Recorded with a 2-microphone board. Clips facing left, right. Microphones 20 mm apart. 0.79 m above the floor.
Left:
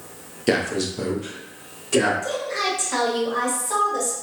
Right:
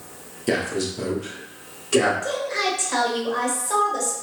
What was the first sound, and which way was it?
A man speaking, 20° left (ahead or behind).